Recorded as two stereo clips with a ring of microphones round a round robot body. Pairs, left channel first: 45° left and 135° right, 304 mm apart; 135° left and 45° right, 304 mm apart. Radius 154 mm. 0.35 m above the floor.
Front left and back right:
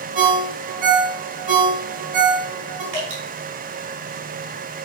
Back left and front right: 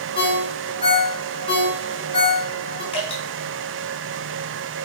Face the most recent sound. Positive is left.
turn(degrees=-155)